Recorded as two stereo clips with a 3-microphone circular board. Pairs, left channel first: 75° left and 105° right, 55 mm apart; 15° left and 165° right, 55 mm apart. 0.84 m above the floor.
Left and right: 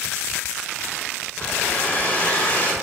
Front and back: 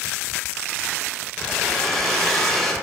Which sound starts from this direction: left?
A hair dryer, at 1.4 s.